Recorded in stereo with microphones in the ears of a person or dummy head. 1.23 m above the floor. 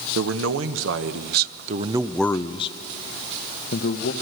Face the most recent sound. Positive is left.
turn(degrees=60)  # may be behind; listen again after turning